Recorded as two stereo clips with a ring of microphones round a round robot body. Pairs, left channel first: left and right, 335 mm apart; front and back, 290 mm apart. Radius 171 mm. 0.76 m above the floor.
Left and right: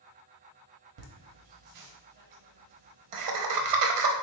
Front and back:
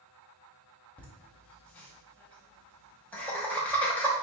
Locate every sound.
1.0 s laughter: 85° right, 0.9 m